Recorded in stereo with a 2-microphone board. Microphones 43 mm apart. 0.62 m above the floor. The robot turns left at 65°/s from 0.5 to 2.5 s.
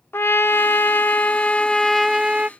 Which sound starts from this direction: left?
A trumpet, at 0.1 s.